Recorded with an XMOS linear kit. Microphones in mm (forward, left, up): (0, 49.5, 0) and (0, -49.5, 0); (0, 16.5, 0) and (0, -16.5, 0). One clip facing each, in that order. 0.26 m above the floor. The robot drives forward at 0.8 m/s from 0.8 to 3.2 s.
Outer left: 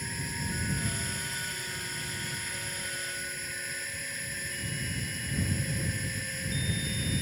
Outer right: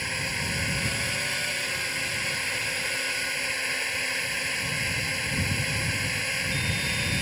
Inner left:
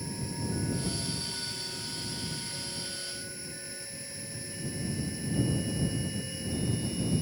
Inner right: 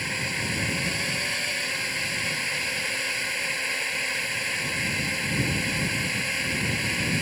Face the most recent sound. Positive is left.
turn(degrees=-75)  # may be behind; listen again after turning